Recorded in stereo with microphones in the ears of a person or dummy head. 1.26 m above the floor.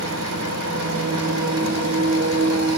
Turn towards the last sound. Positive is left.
turn(degrees=-80)